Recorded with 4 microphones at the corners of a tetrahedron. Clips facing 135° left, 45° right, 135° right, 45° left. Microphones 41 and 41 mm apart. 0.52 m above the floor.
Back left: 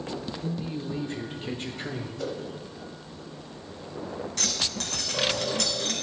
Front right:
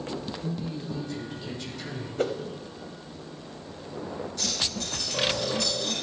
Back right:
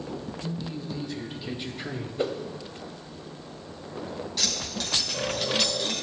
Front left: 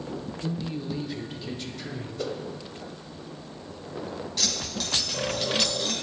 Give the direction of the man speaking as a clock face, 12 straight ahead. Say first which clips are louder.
Back left 1 dB, front left 5 dB; 9 o'clock.